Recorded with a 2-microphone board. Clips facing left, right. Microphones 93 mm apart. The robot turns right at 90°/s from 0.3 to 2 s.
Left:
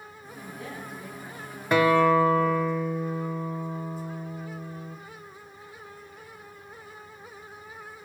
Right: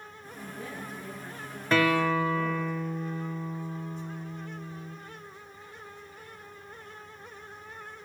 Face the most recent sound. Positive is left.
turn(degrees=40)  # may be behind; listen again after turning